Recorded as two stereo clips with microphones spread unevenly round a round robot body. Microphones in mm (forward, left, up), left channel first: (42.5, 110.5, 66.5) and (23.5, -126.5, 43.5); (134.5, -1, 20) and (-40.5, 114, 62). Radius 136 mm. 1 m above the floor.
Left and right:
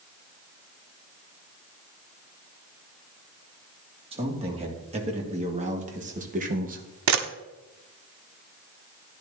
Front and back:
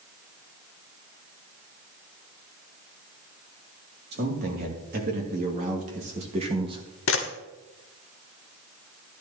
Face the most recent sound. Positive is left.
turn(degrees=-80)